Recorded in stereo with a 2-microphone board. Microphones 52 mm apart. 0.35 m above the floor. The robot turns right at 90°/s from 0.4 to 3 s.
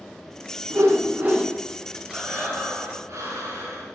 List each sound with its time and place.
0.7 s a whoosh: 90° right, 0.9 m; by 1.5 s 15° right, 0.9 m
2.1 s breathing: 165° right, 3.5 m; by 3.9 s 85° right, 3.5 m